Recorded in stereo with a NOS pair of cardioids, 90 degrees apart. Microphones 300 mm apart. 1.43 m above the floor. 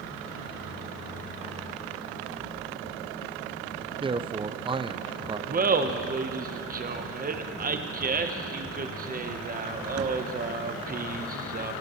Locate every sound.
4.0 s a man speaking: 15° right, 0.5 m
5.5 s laughter: 30° right, 1.1 m